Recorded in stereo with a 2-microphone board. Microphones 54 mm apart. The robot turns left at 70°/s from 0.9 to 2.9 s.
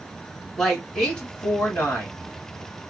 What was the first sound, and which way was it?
A woman speaking, 170° left.